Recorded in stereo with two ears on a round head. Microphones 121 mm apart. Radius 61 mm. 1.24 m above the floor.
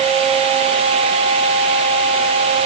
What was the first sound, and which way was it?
Only background noise.